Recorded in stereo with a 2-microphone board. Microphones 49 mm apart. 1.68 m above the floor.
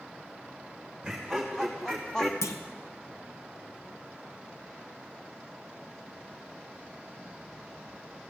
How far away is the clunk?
About 1.1 m.